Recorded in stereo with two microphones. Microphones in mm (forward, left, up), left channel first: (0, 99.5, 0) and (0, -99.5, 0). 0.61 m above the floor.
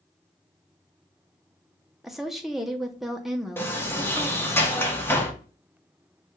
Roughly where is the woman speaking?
Centre.